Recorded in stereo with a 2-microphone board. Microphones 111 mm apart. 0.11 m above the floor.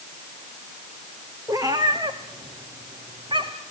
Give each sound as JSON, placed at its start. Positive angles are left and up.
{"t": 1.5, "sound": "a cat meowing", "side_deg": -35, "distance_m": 2.5}